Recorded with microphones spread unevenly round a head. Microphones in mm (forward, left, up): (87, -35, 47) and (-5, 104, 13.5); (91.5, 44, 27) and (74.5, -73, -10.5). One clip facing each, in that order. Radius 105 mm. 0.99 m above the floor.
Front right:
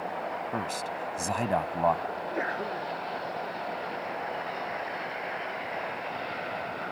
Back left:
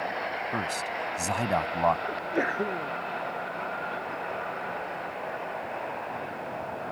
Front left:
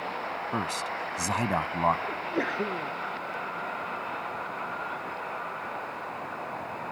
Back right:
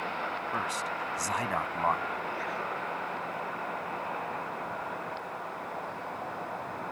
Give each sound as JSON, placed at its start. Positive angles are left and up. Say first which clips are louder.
{"t": 0.5, "sound": "a man speaking", "louder": "back left 1 dB, front left 2 dB", "azimuth_deg": 30}
{"t": 2.1, "sound": "a sneeze", "louder": "back left 3 dB, front left 4 dB", "azimuth_deg": 65}